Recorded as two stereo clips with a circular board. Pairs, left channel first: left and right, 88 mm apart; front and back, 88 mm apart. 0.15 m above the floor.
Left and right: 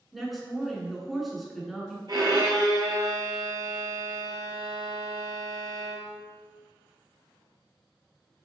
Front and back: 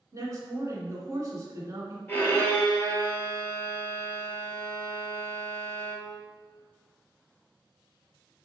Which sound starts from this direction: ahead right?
A violin, at 2.1 s.